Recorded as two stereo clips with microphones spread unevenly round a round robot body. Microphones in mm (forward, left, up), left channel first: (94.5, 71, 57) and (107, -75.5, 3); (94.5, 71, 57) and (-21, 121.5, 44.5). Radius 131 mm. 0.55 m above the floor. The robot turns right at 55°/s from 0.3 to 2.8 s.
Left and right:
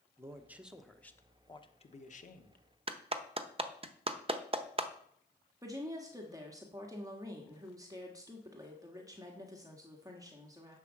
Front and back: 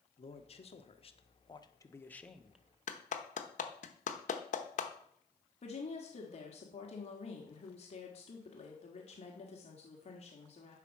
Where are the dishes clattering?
I don't hear dishes clattering.